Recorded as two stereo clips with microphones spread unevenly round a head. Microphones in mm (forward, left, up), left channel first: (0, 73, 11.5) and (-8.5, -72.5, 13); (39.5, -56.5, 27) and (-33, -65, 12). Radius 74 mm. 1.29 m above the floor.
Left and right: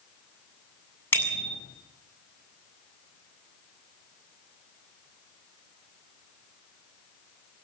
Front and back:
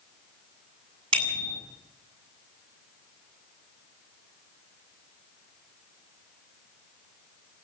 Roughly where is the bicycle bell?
Behind.